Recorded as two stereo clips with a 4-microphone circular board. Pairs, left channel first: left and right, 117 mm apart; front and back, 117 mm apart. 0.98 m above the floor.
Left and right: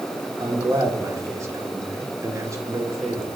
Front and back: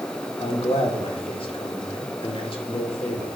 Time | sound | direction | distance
0.4 | a man speaking | 30° right | 1.8 m